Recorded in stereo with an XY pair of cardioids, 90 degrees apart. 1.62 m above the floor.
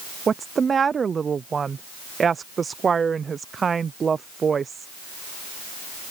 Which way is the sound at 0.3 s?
45° right.